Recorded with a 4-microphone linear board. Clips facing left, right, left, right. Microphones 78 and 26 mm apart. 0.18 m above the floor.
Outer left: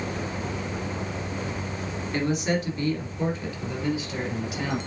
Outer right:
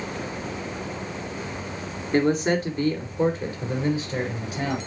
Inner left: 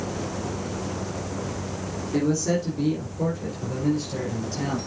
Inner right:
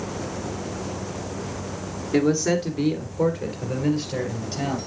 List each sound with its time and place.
2.1 s a man speaking: 35° right (ahead or behind), 3 m